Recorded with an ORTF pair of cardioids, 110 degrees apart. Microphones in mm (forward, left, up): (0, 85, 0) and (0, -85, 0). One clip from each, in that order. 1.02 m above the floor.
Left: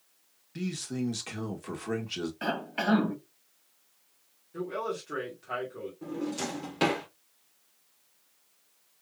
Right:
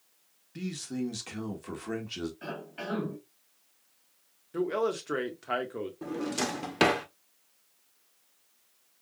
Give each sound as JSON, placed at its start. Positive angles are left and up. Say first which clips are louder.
{"t": 0.6, "sound": "a man speaking", "louder": "left 1 dB", "azimuth_deg": 10, "distance_m": 1.5}
{"t": 2.4, "sound": "a cough", "louder": "left 8 dB", "azimuth_deg": 60, "distance_m": 1.7}
{"t": 4.5, "sound": "a man speaking", "louder": "right 4 dB", "azimuth_deg": -50, "distance_m": 2.0}
{"t": 6.0, "sound": "a drawer", "louder": "right 2 dB", "azimuth_deg": -45, "distance_m": 1.3}